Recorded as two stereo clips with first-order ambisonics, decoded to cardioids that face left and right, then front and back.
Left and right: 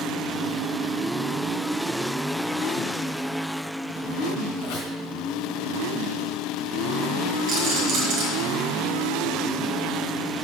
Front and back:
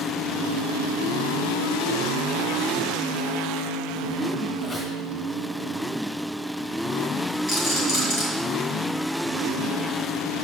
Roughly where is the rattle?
Ahead right.